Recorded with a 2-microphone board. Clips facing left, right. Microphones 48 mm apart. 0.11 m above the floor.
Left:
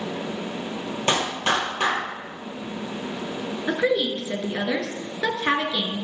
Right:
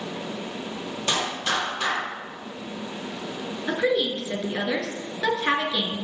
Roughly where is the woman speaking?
Centre.